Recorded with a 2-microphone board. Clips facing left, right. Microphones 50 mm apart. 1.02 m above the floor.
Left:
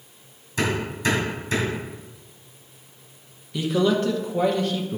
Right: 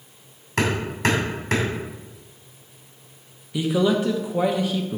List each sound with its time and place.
0.6 s hammering: 75° right (ahead or behind), 2.5 m
3.5 s a man speaking: 5° right (ahead or behind), 1.0 m